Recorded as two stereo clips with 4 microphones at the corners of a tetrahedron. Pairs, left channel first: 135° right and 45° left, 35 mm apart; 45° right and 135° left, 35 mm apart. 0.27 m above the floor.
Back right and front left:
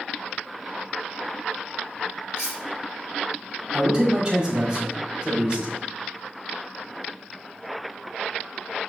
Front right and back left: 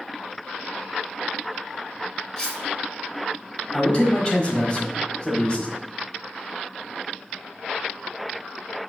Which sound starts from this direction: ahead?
A man speaking, at 3.7 s.